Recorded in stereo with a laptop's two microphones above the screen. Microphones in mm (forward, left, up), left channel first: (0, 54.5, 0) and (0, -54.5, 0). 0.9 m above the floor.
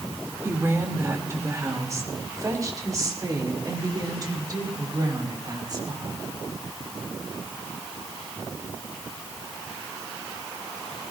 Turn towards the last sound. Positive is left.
turn(degrees=-40)  # may be behind; listen again after turning